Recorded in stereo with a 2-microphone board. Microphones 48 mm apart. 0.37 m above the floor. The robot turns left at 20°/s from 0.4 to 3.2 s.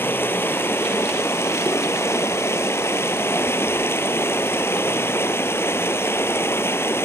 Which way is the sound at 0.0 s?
125° left.